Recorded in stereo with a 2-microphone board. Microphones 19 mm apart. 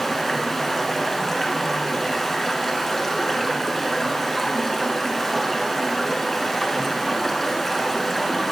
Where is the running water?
10° left (ahead or behind), 0.7 m.